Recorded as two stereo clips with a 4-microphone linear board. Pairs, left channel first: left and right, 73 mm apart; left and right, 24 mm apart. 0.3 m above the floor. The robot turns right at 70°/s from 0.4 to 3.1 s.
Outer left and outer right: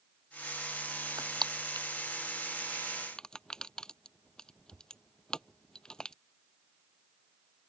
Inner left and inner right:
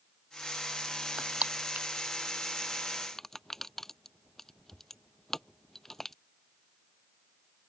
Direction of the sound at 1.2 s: 55° right (ahead or behind).